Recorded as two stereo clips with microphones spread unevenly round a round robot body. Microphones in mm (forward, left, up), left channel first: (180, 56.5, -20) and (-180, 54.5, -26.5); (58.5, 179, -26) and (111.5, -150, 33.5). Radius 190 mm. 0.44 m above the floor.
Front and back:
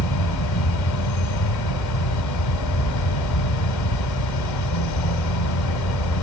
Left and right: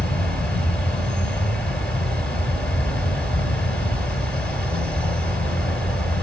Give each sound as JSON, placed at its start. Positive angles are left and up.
{"t": 0.0, "sound": "an insect", "azimuth_deg": 15, "distance_m": 2.5}